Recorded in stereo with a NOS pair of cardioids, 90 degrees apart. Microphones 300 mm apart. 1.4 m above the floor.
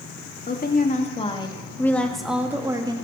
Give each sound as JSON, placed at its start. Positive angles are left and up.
{"t": 0.5, "sound": "a woman speaking", "azimuth_deg": 30, "distance_m": 2.5}